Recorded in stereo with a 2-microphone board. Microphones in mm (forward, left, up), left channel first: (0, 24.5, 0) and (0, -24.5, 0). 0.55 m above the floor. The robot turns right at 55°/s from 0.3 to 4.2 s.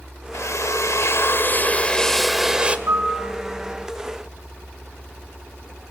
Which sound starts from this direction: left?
A drill, at 0.3 s.